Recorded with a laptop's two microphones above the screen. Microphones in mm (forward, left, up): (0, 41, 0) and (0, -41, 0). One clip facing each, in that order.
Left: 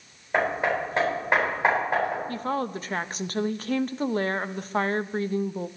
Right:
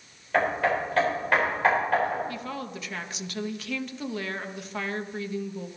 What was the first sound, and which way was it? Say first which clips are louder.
Hammering: even; 20° left (ahead or behind).